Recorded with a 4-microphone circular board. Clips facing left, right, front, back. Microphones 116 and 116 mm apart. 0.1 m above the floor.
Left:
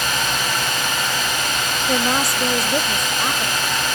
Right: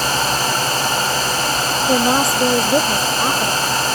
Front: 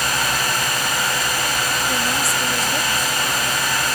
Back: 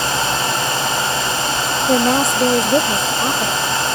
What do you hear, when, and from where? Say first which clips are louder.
1.9 s a woman speaking: right 5 dB, back 8 dB; 155° right; by 3.5 s 150° right